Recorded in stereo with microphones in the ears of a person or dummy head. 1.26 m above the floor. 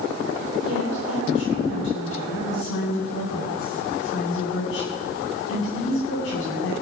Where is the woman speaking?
75° left (ahead or behind), 8.5 m.